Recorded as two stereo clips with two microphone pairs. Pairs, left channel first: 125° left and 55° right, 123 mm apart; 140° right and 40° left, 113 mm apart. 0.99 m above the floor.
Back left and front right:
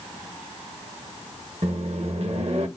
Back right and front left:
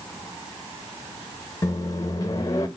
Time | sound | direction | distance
1.6 | a microwave | 80° right | 1.0 m